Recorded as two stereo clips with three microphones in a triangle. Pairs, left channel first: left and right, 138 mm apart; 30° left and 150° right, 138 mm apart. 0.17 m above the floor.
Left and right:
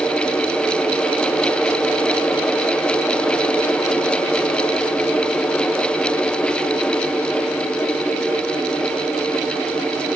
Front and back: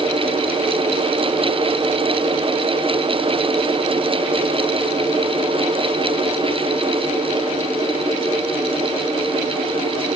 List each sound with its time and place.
Only background noise.